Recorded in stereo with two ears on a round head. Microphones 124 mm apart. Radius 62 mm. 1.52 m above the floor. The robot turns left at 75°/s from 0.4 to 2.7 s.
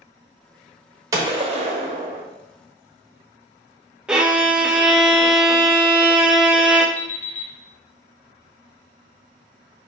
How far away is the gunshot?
About 1.1 m.